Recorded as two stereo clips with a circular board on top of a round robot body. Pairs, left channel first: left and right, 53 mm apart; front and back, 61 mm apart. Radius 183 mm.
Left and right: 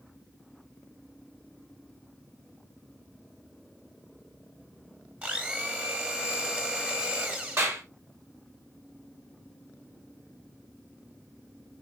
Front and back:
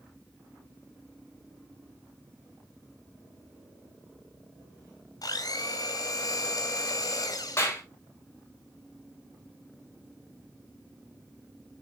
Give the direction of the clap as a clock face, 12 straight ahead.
2 o'clock.